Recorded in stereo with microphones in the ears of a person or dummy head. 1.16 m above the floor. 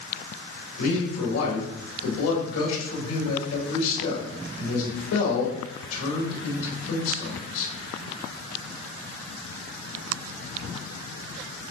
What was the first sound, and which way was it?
A man speaking, 90° left.